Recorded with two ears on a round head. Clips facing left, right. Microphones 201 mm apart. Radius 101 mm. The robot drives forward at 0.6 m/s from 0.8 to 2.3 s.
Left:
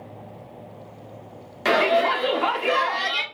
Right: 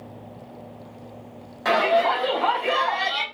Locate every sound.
1.6 s a shout: 40° left (ahead or behind), 0.9 m